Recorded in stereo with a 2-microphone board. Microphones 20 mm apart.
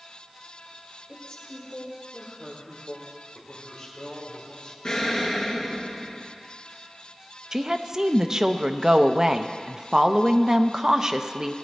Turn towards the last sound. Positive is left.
turn(degrees=-30)  # may be behind; listen again after turning